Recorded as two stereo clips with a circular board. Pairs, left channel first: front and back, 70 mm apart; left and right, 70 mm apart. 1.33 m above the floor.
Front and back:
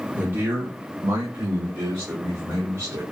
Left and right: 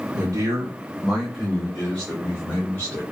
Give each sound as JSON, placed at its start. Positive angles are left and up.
{"t": 0.1, "sound": "a man speaking", "azimuth_deg": -115, "distance_m": 0.8}